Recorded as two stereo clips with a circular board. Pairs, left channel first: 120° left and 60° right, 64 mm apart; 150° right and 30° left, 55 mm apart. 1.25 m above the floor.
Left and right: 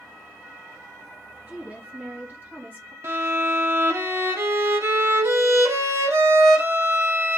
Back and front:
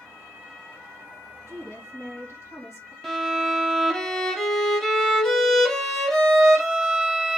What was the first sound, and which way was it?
A woman speaking, 120° right.